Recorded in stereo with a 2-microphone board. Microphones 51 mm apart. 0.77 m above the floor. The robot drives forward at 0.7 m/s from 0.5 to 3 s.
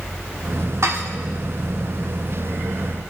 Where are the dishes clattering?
65° right (ahead or behind), 1.2 m; by 1.1 s 60° right (ahead or behind), 1.2 m.